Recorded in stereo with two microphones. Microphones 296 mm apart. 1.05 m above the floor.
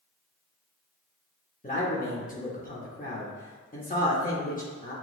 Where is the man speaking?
30° left (ahead or behind), 0.8 m.